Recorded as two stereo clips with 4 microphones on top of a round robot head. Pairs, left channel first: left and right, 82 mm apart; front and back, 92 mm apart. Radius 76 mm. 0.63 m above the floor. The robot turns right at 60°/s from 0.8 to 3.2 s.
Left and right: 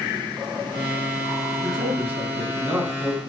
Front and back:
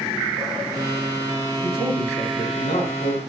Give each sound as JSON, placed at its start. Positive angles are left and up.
{"t": 1.6, "sound": "a man speaking", "azimuth_deg": -130, "distance_m": 6.0}